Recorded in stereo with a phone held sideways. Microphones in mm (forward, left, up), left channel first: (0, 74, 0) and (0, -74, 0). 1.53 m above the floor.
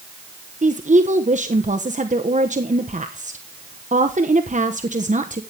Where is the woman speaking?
55° right (ahead or behind), 1.1 m.